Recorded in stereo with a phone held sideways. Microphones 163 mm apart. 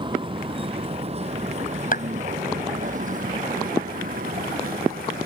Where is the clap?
60° left (ahead or behind).